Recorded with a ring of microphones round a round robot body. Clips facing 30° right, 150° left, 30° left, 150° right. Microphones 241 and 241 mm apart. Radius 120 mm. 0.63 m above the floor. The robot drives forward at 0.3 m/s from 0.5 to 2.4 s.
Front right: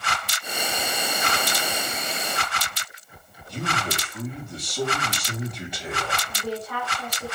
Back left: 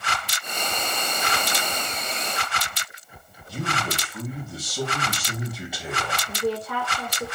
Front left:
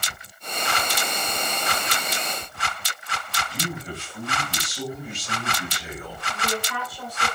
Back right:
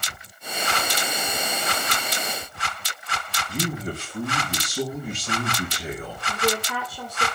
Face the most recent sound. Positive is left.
turn(degrees=-175)